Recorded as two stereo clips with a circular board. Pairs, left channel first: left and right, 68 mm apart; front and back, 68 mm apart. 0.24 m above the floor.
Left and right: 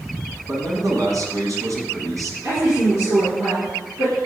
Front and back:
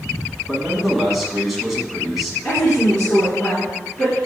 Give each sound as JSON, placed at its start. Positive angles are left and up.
{"t": 0.5, "sound": "a man speaking", "azimuth_deg": -95, "distance_m": 1.9}
{"t": 2.4, "sound": "a woman speaking", "azimuth_deg": -70, "distance_m": 3.5}